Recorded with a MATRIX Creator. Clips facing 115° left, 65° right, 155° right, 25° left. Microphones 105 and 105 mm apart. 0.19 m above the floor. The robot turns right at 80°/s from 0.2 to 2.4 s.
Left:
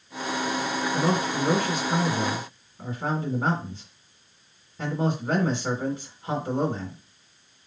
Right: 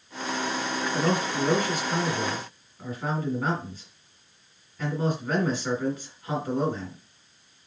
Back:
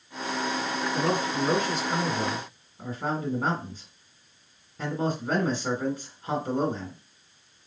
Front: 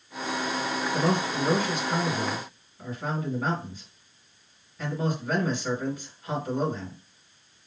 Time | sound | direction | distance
0.9 | a man speaking | 45° left | 1.9 m